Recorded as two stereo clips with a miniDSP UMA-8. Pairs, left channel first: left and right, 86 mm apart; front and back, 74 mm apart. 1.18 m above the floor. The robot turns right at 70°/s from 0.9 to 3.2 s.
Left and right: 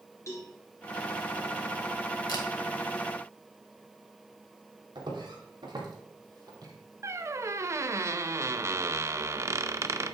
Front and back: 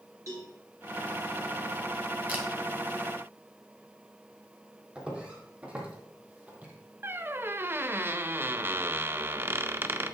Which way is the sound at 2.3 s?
110° left.